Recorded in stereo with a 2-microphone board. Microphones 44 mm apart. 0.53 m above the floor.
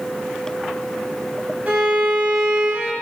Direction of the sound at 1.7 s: 35° right (ahead or behind).